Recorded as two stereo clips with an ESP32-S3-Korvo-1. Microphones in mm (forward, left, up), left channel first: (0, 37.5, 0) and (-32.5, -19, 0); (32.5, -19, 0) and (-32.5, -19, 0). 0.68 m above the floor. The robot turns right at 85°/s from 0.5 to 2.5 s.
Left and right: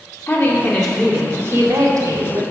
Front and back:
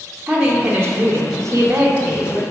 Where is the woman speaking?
100° left, 2.5 m; by 2.4 s 95° right, 2.5 m.